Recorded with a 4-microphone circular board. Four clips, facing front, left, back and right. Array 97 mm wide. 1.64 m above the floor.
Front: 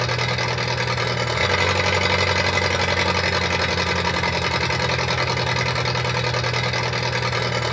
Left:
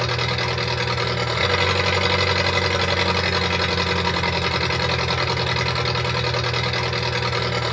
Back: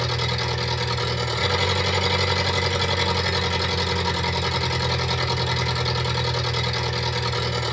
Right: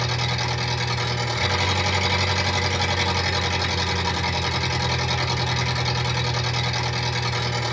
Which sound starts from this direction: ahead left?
An engine running, at 0.0 s.